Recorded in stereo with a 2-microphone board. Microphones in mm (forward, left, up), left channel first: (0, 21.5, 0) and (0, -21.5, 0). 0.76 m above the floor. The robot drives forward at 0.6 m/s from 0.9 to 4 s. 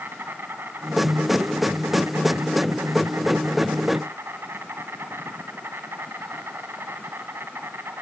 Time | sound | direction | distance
0.0 | an insect | 60° right (ahead or behind) | 2 m